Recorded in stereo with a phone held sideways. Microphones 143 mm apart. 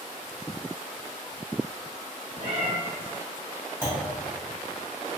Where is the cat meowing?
65° right (ahead or behind), 1.2 m.